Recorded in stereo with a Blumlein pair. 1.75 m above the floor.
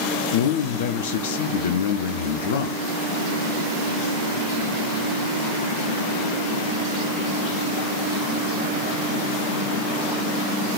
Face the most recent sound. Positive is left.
turn(degrees=55)